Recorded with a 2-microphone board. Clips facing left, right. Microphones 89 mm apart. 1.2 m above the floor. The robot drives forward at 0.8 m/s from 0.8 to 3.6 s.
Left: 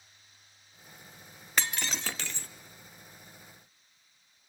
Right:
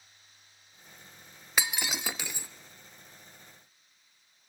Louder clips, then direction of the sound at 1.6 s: Right 1 dB; 10° right (ahead or behind).